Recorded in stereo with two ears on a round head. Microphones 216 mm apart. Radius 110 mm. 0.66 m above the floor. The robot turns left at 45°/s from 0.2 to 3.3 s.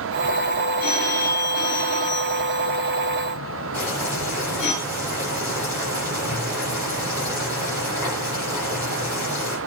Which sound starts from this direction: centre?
Boiling, at 3.7 s.